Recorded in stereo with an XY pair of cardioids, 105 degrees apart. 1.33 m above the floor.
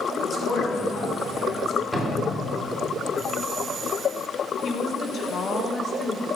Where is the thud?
5° right, 2.0 m.